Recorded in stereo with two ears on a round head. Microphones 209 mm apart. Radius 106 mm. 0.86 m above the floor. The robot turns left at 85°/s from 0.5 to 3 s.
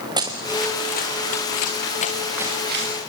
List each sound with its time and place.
0.2 s running footsteps: 20° right (ahead or behind), 3 m; by 3.0 s 60° right (ahead or behind), 4 m